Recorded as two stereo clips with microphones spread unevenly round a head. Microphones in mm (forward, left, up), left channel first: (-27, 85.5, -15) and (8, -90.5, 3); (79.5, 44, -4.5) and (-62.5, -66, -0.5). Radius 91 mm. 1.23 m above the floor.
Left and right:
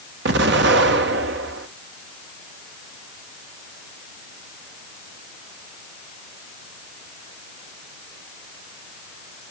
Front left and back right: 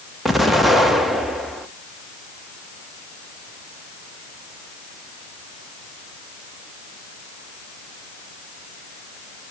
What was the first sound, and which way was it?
An explosion, 55° right.